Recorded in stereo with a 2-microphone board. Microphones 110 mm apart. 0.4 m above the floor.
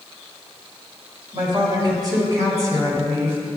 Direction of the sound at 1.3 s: 45° right (ahead or behind).